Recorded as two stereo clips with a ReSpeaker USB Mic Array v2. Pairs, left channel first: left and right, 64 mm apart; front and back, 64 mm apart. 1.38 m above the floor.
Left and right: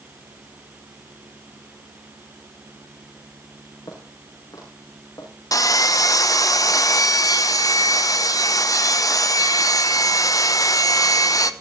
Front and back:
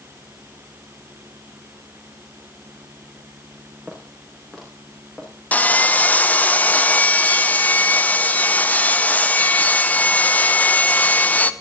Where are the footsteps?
90° left, 7 m; by 5.3 s 80° left, 8 m.